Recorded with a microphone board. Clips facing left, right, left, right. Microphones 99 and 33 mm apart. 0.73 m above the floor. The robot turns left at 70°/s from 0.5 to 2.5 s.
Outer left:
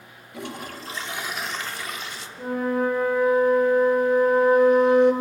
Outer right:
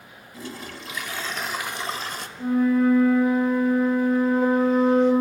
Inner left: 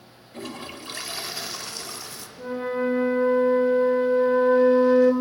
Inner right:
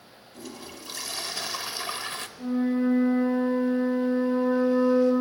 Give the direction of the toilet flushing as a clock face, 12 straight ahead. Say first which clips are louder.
Outer left 2 dB, inner left 5 dB; 10 o'clock.